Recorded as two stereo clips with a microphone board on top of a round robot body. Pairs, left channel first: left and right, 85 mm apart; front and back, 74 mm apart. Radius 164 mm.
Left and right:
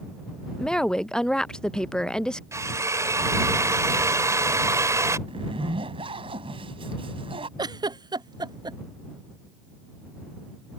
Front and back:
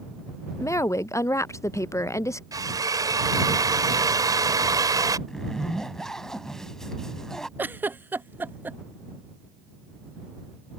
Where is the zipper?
80° right.